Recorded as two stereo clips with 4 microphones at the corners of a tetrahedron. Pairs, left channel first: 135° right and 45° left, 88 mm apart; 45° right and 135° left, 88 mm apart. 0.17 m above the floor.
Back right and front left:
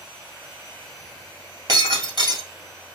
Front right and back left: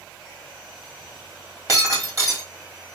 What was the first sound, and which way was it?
Breaking glass, 85° left.